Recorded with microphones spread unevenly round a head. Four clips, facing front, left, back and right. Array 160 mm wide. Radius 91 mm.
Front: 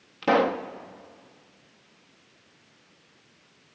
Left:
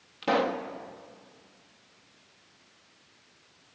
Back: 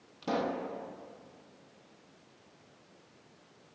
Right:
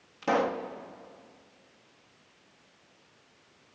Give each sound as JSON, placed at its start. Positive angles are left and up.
{"t": 0.2, "sound": "a pop", "azimuth_deg": 5, "distance_m": 1.6}